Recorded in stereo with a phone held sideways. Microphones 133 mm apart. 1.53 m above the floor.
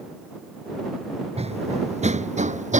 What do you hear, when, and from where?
1.4 s running footsteps: 50° right (ahead or behind); by 2.8 s 65° right (ahead or behind)